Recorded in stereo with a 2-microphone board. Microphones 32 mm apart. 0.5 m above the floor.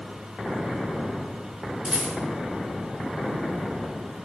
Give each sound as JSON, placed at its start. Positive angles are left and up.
{"t": 1.9, "sound": "a rattle", "side_deg": -30, "distance_m": 5.0}